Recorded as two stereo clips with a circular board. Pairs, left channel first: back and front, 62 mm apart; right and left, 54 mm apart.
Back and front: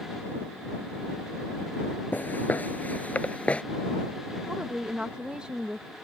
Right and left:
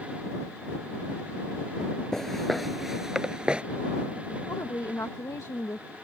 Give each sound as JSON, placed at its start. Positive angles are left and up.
{"t": 2.1, "sound": "footsteps", "azimuth_deg": -160}
{"t": 4.5, "sound": "a woman speaking", "azimuth_deg": -75}